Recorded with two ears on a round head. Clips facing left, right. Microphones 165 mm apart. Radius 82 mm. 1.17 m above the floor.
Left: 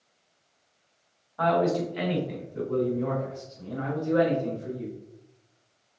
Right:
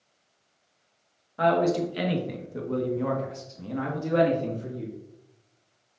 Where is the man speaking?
30° right (ahead or behind), 1.8 m; by 4.9 s 75° right (ahead or behind), 2.5 m.